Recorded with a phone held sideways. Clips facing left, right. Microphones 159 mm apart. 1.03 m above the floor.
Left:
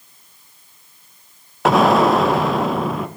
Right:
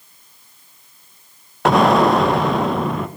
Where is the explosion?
Centre (ahead or behind), 0.6 m.